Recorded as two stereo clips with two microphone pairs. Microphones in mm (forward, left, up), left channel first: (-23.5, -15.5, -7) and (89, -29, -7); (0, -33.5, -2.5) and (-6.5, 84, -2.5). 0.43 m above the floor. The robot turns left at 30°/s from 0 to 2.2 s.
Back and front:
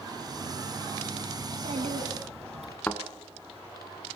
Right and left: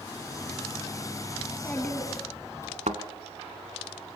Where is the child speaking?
Straight ahead, 2.5 m; by 2.8 s 25° right, 2.5 m.